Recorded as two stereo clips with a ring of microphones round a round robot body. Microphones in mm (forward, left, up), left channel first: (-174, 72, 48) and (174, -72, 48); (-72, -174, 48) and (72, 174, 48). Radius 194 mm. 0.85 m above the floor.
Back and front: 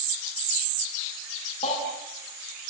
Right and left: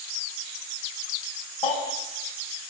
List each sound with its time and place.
1.6 s a baby crying: 130° right, 5.5 m